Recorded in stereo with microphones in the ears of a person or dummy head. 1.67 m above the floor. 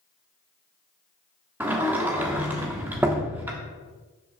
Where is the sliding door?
10° right (ahead or behind), 1.2 m.